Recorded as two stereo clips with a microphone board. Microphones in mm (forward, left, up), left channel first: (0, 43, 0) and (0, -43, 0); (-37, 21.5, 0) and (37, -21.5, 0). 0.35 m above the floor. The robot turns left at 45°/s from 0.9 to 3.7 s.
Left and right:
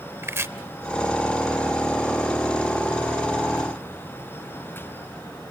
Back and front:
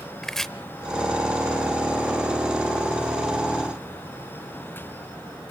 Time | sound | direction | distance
0.2 | chopping | 125° right | 0.7 m